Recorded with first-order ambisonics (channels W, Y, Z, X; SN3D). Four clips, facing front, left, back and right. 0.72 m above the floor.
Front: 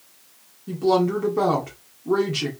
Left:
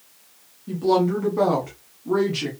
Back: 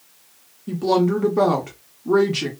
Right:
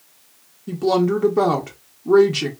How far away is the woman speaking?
About 0.6 m.